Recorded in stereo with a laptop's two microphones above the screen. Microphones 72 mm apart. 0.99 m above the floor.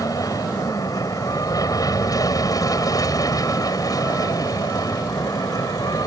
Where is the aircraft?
50° left (ahead or behind); by 6.1 s 55° left (ahead or behind).